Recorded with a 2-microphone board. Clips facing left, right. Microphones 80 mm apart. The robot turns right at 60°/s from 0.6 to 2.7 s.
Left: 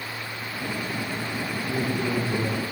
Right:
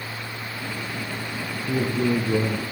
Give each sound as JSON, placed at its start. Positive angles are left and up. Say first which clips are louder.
{"t": 1.7, "sound": "a man speaking", "louder": "right 5 dB", "azimuth_deg": -105, "distance_m": 6.5}